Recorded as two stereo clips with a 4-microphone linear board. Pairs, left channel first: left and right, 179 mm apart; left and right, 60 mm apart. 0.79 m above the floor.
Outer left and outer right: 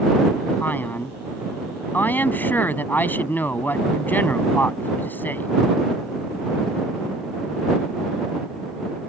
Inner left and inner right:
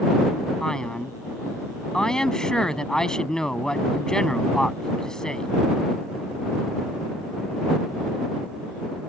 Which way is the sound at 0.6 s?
10° left (ahead or behind).